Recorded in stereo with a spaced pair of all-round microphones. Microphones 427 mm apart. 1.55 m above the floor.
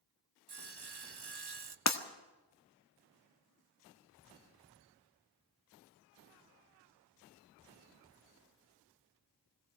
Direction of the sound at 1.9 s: 40° left (ahead or behind).